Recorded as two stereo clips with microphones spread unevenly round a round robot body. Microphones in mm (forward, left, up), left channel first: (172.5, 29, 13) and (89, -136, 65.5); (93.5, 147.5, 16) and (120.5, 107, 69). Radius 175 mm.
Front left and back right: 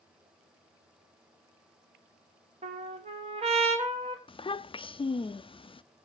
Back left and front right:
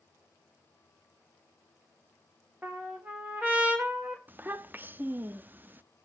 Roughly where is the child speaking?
Ahead.